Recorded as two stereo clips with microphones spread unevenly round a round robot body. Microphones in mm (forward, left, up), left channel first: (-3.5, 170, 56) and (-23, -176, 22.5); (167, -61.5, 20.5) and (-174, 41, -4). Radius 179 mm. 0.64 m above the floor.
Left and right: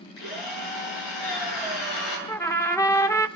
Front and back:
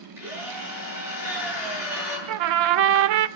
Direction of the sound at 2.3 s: 170° left.